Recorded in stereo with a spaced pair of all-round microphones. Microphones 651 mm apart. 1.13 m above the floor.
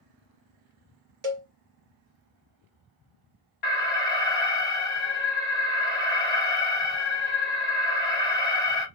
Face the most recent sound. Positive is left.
turn(degrees=45)  # may be behind; listen again after turning